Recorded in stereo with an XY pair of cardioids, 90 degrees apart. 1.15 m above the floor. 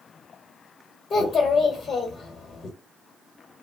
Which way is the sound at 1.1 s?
65° left.